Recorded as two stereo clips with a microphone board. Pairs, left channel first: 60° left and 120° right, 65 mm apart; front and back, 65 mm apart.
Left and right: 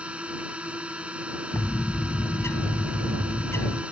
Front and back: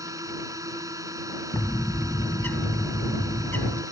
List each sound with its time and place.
0.0 s a drone: 170° left
1.5 s a bird: 40° left